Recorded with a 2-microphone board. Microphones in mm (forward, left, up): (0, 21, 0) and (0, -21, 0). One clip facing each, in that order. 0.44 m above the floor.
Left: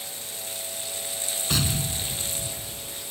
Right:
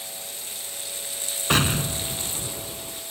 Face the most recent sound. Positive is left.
turn(degrees=-45)  # may be behind; listen again after turning